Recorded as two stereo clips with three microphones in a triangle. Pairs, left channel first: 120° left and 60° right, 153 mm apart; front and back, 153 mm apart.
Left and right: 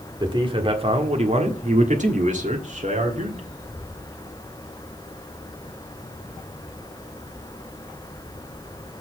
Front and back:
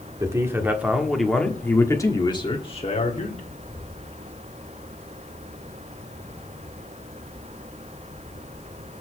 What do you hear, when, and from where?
0.2 s a man speaking: 115° right, 1.5 m; by 3.5 s 30° right, 1.6 m